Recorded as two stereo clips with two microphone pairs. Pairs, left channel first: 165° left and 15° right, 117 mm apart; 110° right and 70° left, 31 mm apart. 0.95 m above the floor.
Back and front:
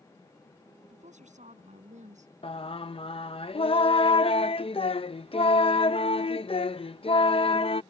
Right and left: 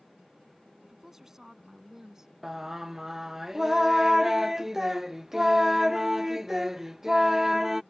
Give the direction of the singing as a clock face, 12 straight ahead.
7 o'clock.